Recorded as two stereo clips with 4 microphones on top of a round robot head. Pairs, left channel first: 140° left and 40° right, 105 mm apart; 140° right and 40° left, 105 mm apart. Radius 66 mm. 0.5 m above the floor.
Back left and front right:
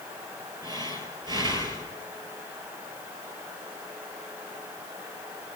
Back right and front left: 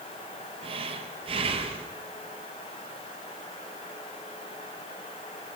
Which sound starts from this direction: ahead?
Breathing, at 0.6 s.